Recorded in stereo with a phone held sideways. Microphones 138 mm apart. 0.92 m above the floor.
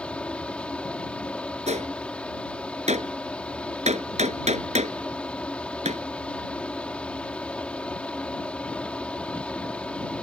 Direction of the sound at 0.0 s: 10° left (ahead or behind).